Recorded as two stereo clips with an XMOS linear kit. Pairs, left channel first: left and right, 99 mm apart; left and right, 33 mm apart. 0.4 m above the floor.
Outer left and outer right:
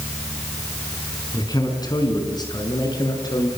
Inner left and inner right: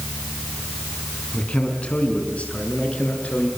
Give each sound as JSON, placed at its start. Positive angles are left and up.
{"t": 1.3, "sound": "a man speaking", "side_deg": 40, "distance_m": 4.5}